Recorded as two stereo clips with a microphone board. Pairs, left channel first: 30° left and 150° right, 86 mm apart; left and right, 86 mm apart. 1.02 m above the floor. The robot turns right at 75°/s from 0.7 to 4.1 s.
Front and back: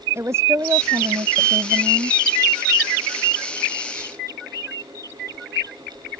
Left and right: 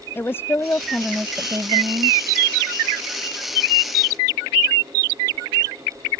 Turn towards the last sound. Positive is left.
turn(degrees=50)